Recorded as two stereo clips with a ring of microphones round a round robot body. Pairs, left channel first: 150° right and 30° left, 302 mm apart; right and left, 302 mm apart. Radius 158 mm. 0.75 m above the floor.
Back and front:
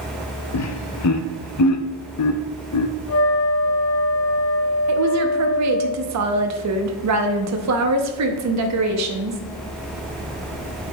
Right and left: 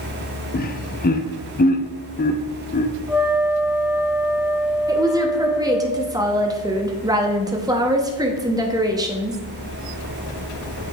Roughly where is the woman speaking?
Ahead.